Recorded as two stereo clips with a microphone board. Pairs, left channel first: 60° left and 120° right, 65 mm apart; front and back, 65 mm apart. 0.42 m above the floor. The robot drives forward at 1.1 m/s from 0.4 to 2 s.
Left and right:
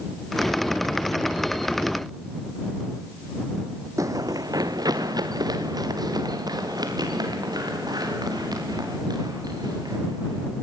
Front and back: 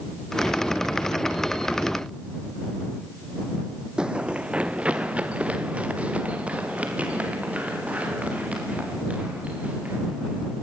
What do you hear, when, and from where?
4.0 s running footsteps: 105° right, 0.7 m; by 10.6 s 110° right, 10 m